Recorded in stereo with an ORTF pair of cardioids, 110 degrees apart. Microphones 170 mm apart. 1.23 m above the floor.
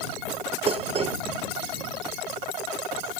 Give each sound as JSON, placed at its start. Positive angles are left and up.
{"t": 0.7, "sound": "dishes clattering", "azimuth_deg": -35}